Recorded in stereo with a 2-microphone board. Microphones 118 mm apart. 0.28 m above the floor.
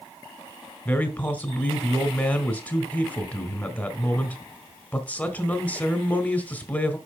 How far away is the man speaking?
About 1.3 m.